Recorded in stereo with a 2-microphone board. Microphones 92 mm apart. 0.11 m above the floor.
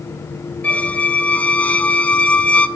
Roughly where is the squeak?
Centre.